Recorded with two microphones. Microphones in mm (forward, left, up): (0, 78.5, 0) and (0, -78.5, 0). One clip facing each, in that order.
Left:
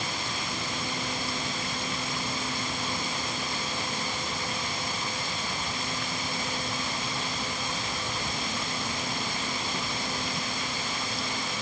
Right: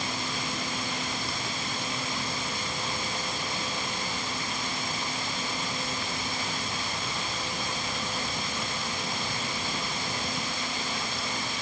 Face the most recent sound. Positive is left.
No sound to turn to.